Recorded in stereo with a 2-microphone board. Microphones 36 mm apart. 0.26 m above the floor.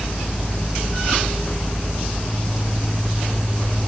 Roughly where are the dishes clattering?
I don't hear dishes clattering.